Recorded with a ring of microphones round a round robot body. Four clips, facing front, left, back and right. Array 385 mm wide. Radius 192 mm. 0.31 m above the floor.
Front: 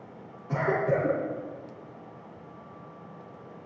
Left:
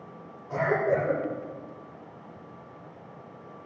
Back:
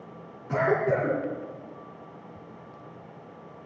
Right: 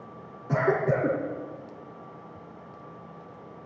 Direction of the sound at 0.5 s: 100° right.